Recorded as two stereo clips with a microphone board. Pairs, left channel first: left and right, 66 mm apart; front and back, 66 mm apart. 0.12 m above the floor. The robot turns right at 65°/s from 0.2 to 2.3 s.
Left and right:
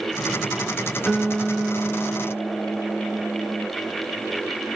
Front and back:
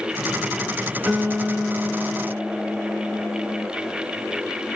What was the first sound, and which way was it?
A guitar, 170° left.